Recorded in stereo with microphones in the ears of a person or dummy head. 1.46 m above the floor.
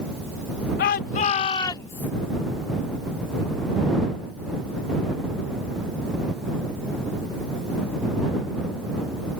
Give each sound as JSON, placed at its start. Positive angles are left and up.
{"t": 0.8, "sound": "a shout", "side_deg": 60}